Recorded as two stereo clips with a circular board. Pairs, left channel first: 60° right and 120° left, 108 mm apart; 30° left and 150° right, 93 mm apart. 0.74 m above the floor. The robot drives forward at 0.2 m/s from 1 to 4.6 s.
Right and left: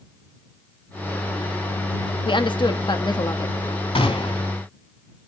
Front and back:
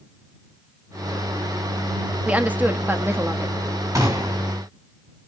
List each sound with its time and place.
2.2 s a woman speaking: 75° right, 1.0 m; by 3.5 s 95° right, 1.0 m
4.0 s a gunshot: 95° right, 2.5 m; by 4.5 s 100° right, 2.5 m